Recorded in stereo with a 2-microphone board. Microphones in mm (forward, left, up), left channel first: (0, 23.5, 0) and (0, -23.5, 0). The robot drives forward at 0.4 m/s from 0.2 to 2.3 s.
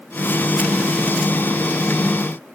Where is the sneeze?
I don't hear a sneeze.